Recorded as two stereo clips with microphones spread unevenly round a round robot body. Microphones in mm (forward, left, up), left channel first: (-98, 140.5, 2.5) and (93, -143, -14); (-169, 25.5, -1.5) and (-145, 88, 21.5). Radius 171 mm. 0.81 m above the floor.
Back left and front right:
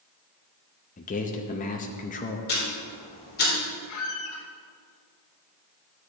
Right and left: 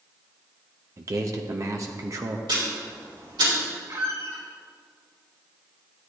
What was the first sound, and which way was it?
A man speaking, 80° left.